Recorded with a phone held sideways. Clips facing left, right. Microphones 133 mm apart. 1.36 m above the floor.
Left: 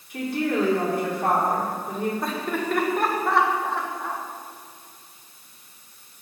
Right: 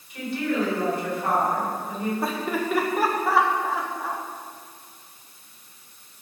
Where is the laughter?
5° right (ahead or behind), 1.4 m.